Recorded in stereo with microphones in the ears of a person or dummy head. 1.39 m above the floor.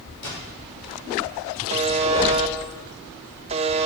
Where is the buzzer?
30° right (ahead or behind), 0.6 m.